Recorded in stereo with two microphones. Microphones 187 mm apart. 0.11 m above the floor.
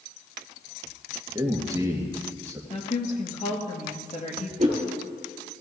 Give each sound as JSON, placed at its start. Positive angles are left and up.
{"t": 1.4, "sound": "a man speaking", "side_deg": -20, "distance_m": 2.0}
{"t": 2.7, "sound": "a woman speaking", "side_deg": 40, "distance_m": 2.0}
{"t": 4.6, "sound": "a whoosh", "side_deg": -45, "distance_m": 3.0}